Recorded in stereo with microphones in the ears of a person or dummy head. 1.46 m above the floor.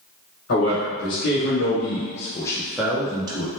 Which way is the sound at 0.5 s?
85° left.